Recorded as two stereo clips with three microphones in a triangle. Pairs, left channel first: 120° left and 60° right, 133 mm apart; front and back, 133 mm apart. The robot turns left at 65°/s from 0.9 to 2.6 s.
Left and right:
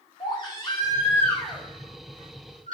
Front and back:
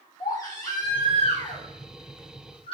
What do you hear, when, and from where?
0.2 s a baby crying: 65° left, 4 m; by 2.8 s 45° right, 4 m